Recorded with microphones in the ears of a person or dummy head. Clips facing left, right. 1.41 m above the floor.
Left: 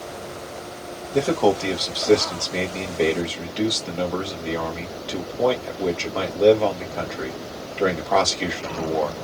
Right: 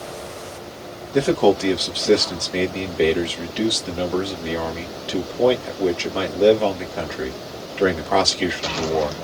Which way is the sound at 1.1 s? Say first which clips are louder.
Right 3 dB; 10° right (ahead or behind).